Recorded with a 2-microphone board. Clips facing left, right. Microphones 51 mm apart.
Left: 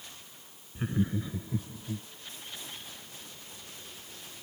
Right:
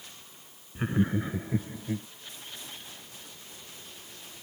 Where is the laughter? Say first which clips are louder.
Right 3 dB; 25° right (ahead or behind); by 2.1 s 55° right (ahead or behind).